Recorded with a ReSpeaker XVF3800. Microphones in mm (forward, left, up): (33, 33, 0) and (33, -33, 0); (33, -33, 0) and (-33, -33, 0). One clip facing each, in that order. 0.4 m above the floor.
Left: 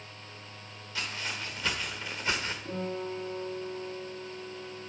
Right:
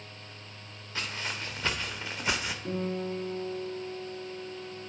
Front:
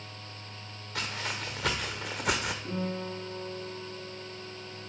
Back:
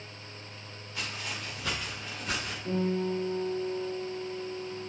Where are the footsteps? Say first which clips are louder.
Right 1 dB, front 3 dB; 35° right, 2.5 m; by 2.5 s 10° right, 1.1 m.